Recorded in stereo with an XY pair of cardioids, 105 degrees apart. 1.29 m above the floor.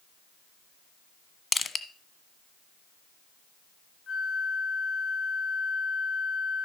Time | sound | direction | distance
1.5 | crushing | 30° left | 1.3 m
4.1 | a flute | 45° left | 2.5 m